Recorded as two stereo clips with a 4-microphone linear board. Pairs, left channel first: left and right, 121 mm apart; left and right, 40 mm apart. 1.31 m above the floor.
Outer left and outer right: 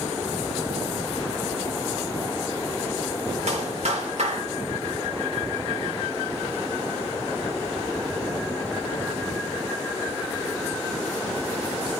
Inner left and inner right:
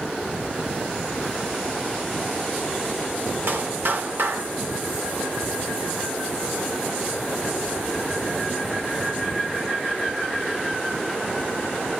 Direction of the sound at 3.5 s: 65° right (ahead or behind).